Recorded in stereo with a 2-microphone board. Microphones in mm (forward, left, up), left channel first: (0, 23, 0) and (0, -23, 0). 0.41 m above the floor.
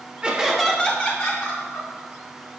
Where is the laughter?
20° right (ahead or behind), 1.0 m; by 1.9 s 55° left (ahead or behind), 1.8 m.